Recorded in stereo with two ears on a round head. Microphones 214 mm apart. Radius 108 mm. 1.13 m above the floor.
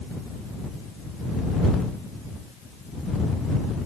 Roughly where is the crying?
No crying in this recording.